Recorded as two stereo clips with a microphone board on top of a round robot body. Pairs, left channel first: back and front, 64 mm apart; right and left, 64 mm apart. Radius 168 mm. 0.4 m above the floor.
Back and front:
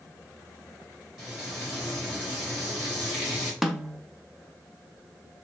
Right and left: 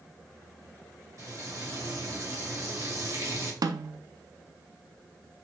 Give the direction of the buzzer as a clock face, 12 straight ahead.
No buzzer in this recording.